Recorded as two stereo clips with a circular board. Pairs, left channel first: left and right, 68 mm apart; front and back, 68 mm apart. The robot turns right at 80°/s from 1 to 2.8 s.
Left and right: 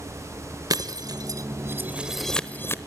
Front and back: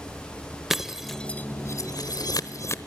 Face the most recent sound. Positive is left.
turn(degrees=45)